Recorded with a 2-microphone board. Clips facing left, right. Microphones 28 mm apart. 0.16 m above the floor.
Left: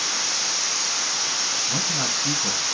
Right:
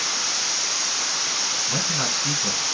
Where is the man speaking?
20° right (ahead or behind), 1.5 m.